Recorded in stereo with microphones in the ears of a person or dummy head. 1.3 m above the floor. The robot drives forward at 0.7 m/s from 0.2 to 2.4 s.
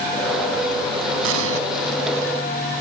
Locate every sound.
1.2 s an explosion: 75° right (ahead or behind); by 1.6 s 80° right